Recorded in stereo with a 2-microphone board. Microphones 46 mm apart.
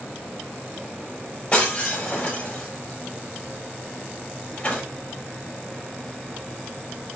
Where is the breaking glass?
35° left (ahead or behind), 6.5 m.